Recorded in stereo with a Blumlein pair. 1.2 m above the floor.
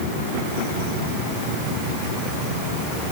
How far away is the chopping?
No chopping in this recording.